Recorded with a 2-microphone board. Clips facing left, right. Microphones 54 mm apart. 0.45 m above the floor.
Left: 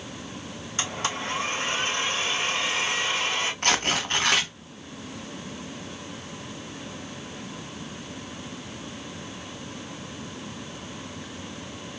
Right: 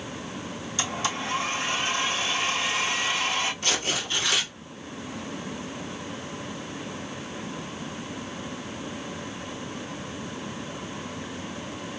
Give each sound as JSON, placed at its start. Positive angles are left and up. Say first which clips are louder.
{"t": 0.8, "sound": "a blender", "louder": "even", "side_deg": 45, "distance_m": 1.5}
{"t": 3.6, "sound": "tearing paper", "louder": "left 4 dB", "side_deg": 60, "distance_m": 0.8}